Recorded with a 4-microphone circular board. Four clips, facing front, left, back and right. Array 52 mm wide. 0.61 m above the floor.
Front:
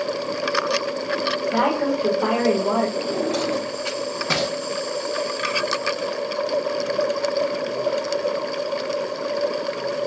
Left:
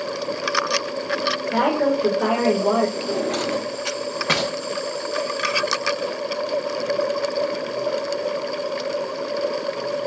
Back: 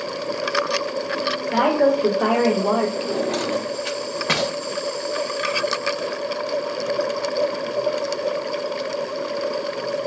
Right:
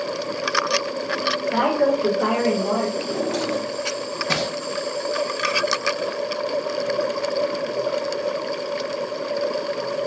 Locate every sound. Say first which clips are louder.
1.5 s a woman speaking: even, back 5 dB; 160° right, 2.0 m; by 2.9 s 130° left, 1.4 m
3.0 s a drawer: even, even; 135° left, 0.9 m